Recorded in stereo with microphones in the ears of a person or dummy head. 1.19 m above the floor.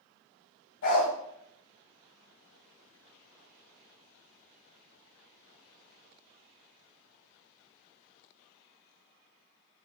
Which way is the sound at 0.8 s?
60° left (ahead or behind).